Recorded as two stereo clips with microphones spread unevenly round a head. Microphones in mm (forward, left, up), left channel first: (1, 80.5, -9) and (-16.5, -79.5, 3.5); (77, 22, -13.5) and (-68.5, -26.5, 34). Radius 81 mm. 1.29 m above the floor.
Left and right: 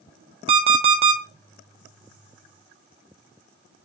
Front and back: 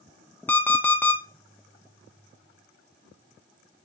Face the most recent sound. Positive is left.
turn(degrees=-75)